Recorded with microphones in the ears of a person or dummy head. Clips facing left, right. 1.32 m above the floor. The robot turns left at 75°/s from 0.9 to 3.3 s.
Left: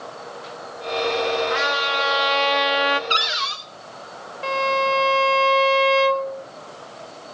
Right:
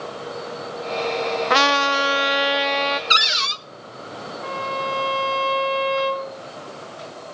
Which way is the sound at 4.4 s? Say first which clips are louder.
Left 6 dB; 40° left (ahead or behind).